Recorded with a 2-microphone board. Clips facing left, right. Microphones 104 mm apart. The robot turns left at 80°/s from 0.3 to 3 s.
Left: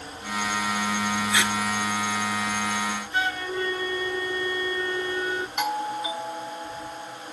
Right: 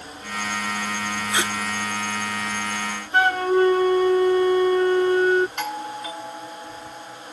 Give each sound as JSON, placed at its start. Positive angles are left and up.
{"t": 1.3, "sound": "tape being pulled", "side_deg": -45}
{"t": 3.1, "sound": "a flute", "side_deg": -65}
{"t": 5.6, "sound": "a doorbell", "side_deg": 15}